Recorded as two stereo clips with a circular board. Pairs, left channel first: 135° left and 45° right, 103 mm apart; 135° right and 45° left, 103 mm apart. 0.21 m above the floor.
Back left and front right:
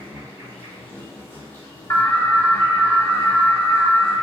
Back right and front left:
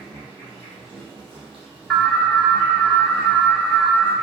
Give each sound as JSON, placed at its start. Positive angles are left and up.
{"t": 0.0, "sound": "an insect", "azimuth_deg": 65, "distance_m": 1.7}
{"t": 1.9, "sound": "an alarm", "azimuth_deg": 140, "distance_m": 0.7}